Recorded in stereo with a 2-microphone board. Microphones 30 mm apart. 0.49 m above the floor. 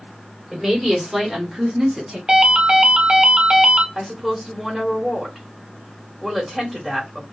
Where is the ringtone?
35° right (ahead or behind), 0.7 m.